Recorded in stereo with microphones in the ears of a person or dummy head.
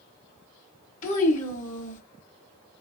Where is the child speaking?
45° left (ahead or behind), 1.8 m.